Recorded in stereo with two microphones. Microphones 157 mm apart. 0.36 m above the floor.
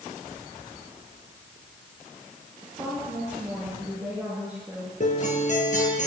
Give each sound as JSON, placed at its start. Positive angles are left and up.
{"t": 2.6, "sound": "a woman speaking", "side_deg": -10, "distance_m": 6.0}
{"t": 5.0, "sound": "a guitar", "side_deg": 50, "distance_m": 3.5}